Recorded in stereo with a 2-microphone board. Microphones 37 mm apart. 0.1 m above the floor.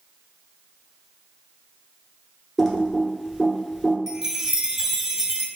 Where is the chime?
10° right (ahead or behind), 0.6 m.